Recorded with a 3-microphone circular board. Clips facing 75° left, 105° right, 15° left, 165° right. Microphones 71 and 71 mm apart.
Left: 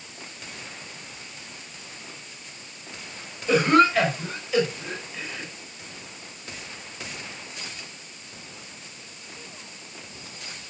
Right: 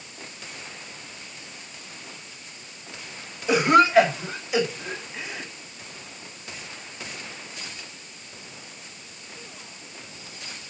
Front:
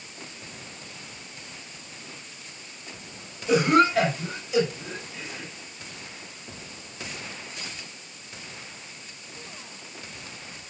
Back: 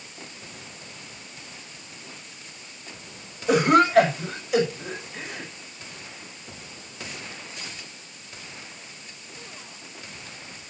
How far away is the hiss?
No hiss in this recording.